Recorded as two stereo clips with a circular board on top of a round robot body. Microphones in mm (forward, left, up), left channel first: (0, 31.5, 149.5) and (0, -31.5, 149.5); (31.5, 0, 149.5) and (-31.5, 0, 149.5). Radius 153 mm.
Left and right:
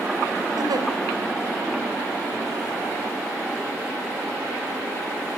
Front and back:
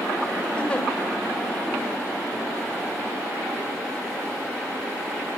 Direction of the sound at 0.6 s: 70° right.